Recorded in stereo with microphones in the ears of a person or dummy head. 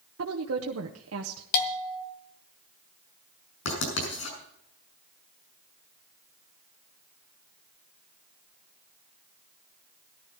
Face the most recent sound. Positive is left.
turn(degrees=70)  # may be behind; listen again after turning